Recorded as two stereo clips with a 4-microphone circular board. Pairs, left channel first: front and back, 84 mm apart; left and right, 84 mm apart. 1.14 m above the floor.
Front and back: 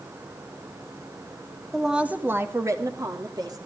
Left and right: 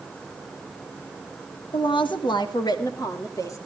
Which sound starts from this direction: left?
A woman speaking, at 1.7 s.